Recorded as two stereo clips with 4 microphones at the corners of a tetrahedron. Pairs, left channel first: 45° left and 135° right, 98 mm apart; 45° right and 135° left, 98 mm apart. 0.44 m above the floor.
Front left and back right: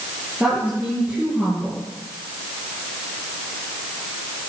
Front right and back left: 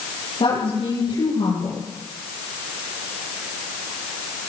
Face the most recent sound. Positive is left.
turn(degrees=-55)